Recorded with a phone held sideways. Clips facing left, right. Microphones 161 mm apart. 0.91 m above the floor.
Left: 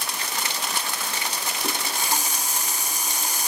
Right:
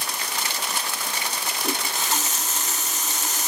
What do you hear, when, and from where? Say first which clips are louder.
1.6 s a running tap: right 1 dB; 15° left (ahead or behind), 5.5 m